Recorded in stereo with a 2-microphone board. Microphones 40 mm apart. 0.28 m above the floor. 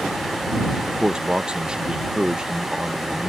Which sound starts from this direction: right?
A man speaking, at 0.9 s.